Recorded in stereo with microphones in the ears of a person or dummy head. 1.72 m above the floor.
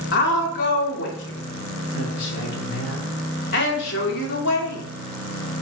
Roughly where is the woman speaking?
Left.